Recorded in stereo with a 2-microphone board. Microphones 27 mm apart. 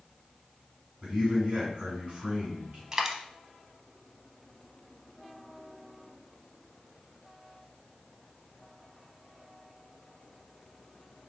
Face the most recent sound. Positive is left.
turn(degrees=-20)  # may be behind; listen again after turning